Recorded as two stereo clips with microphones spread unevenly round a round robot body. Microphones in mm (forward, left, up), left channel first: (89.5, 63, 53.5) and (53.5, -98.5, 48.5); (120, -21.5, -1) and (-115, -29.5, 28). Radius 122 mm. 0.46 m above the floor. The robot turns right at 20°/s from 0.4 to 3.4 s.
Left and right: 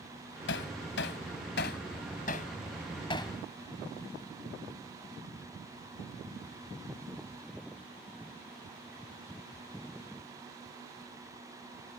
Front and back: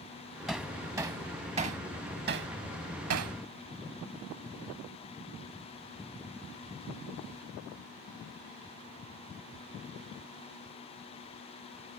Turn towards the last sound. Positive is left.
turn(degrees=150)